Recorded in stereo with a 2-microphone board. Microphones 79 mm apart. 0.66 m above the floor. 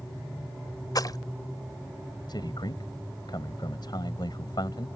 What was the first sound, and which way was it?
A splash, 55° left (ahead or behind).